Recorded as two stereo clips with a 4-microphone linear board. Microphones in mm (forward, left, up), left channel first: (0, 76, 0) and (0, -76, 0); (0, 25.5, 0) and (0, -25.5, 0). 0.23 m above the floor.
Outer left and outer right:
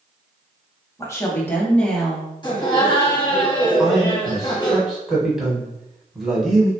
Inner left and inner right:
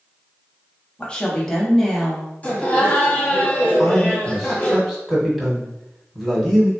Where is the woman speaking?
20° left (ahead or behind), 1.0 m; by 2.3 s centre (ahead or behind), 1.0 m.